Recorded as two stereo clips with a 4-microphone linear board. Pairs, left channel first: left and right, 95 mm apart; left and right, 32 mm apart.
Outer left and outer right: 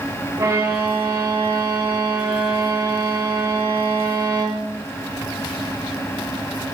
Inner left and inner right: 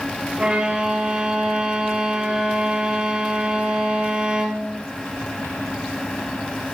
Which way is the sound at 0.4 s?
35° right (ahead or behind).